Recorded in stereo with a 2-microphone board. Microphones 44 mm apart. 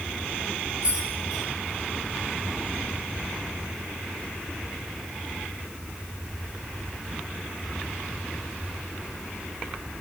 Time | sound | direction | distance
0.8 | keys jangling | 20° right (ahead or behind) | 3 m